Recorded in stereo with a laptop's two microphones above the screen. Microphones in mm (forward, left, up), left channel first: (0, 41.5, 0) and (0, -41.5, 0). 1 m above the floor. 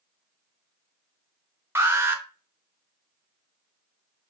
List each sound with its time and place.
1.8 s an alarm: 30° right (ahead or behind), 1.0 m